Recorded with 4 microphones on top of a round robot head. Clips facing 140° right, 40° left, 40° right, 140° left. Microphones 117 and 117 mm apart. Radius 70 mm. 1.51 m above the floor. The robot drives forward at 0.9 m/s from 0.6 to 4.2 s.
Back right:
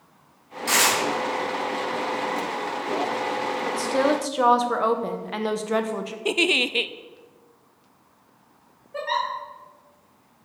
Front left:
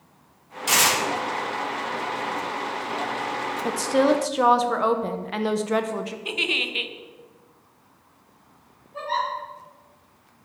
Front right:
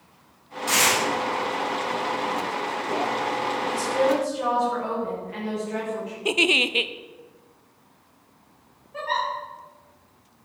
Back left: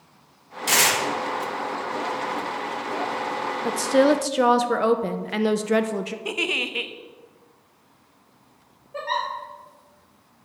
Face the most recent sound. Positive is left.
turn(degrees=-165)